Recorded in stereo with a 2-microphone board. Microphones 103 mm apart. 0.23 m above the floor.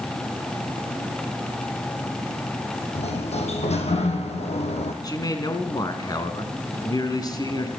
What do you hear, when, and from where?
3.0 s a sliding door: 80° left, 3 m
5.0 s a man speaking: 35° left (ahead or behind), 3 m